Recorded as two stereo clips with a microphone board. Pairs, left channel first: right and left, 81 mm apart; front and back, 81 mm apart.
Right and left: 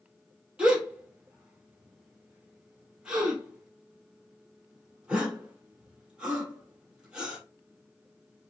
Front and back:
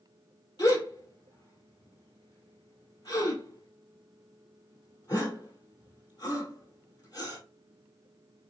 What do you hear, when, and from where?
0.6 s a gasp: 15° left, 2.5 m